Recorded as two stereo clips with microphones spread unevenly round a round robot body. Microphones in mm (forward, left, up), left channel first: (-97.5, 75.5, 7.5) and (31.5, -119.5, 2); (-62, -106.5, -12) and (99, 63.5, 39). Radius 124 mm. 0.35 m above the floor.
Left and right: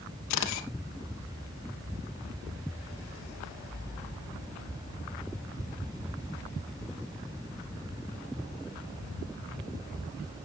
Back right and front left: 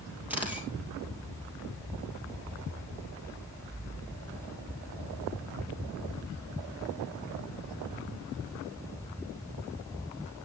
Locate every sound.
0.3 s a camera shutter: 130° left, 3 m